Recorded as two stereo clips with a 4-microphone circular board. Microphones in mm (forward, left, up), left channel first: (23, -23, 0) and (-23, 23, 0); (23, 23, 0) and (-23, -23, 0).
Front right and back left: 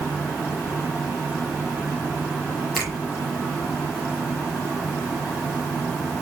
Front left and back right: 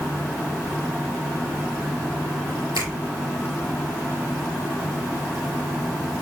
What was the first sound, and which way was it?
A finger snap, 140° right.